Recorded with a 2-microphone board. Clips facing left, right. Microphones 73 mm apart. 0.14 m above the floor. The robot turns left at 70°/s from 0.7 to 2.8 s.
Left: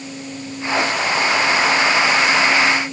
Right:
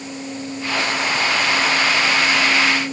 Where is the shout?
I don't hear a shout.